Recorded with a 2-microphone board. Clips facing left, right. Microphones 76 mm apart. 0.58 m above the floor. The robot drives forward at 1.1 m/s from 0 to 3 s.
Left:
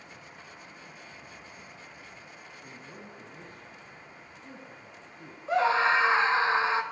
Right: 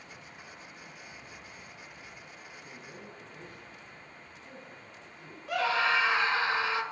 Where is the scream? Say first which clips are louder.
Left 4 dB; 30° left (ahead or behind), 3 m.